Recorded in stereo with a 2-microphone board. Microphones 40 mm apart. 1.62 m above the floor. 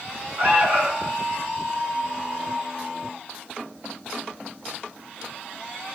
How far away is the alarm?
About 1.6 m.